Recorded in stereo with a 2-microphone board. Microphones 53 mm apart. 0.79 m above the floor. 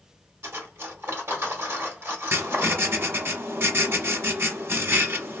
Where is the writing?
55° right (ahead or behind), 1.0 m.